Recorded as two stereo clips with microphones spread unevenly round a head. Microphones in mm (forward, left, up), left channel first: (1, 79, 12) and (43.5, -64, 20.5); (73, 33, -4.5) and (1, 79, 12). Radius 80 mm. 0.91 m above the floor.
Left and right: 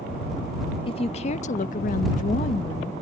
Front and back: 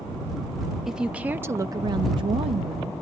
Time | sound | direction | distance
0.9 | a woman speaking | 60° left | ?